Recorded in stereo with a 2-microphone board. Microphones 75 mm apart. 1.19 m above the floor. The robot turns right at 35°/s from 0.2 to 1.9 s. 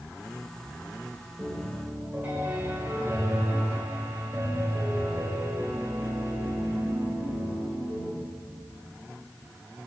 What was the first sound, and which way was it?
A piano, 10° right (ahead or behind).